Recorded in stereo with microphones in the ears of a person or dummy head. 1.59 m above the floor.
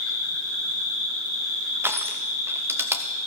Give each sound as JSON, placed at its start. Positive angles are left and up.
{"t": 0.0, "sound": "an insect", "side_deg": -85, "distance_m": 9.5}
{"t": 1.8, "sound": "crushing", "side_deg": -10, "distance_m": 0.9}